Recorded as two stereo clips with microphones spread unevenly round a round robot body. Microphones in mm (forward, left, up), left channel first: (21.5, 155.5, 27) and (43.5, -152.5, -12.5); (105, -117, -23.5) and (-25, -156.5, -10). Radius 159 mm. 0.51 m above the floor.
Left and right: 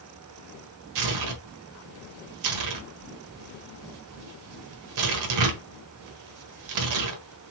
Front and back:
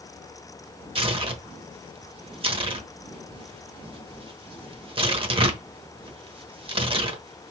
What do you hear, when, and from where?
0.9 s tearing paper: 110° right, 1.2 m